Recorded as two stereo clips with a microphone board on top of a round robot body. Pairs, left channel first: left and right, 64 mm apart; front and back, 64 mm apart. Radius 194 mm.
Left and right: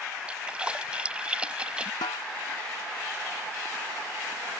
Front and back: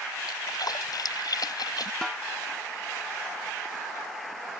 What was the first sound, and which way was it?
A splash, 15° right.